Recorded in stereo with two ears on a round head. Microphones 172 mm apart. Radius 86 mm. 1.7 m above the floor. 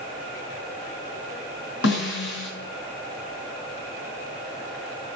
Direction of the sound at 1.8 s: 70° left (ahead or behind).